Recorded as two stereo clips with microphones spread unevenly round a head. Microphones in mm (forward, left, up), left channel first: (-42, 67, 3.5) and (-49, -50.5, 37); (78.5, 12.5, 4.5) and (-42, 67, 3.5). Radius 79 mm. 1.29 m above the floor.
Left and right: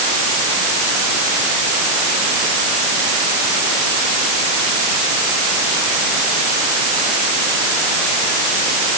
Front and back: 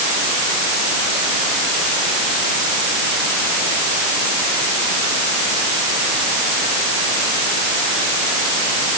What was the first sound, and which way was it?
Only background noise.